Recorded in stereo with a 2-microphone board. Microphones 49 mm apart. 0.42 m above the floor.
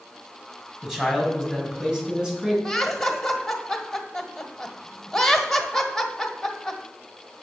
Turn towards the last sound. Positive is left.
turn(degrees=5)  # may be behind; listen again after turning